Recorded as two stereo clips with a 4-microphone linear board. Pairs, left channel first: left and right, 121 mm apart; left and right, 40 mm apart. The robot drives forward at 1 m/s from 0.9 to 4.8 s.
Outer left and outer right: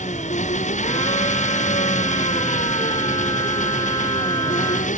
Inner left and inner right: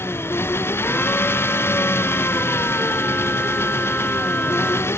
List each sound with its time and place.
0.0 s an engine running: 70° left (ahead or behind); by 5.0 s 80° left